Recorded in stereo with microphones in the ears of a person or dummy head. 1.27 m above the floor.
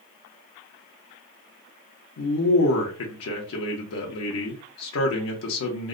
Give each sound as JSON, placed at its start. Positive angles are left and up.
{"t": 2.2, "sound": "a man speaking", "side_deg": 75, "distance_m": 0.6}